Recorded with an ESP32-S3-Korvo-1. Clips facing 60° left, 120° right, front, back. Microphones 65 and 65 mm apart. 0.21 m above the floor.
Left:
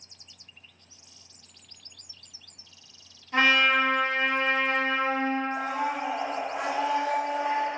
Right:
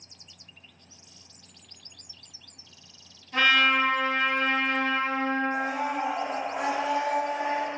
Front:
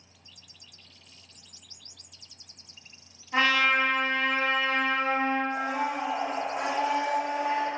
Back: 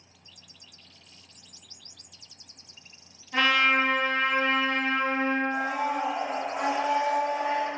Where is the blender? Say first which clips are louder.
Right 1 dB, back 1 dB; 70° right, 1.9 m.